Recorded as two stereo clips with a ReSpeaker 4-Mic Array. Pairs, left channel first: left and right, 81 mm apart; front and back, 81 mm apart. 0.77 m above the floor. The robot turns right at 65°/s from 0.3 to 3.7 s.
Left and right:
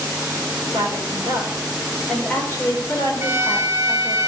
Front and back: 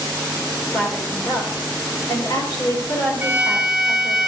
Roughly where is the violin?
Behind right.